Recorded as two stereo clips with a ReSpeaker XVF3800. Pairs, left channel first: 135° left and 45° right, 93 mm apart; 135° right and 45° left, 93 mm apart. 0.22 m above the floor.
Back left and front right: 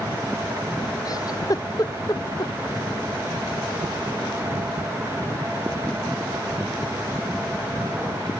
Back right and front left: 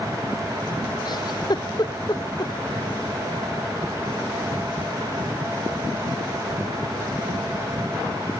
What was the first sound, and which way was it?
A giggle, 175° right.